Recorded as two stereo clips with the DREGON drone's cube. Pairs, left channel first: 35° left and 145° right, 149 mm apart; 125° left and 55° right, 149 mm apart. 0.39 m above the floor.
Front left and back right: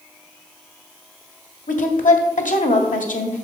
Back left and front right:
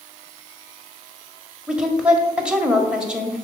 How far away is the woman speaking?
About 1.8 m.